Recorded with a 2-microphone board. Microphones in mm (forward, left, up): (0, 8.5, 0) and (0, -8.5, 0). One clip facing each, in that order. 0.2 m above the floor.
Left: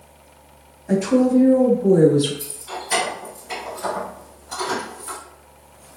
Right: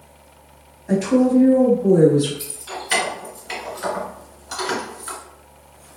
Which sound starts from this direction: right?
Keys jangling, at 2.4 s.